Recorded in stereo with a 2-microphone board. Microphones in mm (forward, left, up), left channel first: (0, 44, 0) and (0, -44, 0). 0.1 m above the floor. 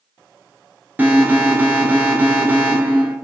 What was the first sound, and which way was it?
An alarm, 20° right (ahead or behind).